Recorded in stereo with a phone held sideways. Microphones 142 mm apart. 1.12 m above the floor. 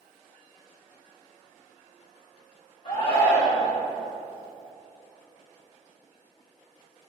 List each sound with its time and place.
2.9 s a shout: 45° left (ahead or behind), 3.5 m